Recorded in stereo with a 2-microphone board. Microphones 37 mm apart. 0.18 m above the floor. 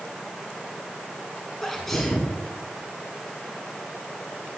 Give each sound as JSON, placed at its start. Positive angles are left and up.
{"t": 1.6, "sound": "a sneeze", "side_deg": 5, "distance_m": 1.9}